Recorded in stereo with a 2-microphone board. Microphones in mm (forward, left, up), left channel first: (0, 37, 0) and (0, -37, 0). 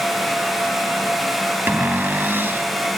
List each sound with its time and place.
1.7 s a cupboard door: 30° right (ahead or behind)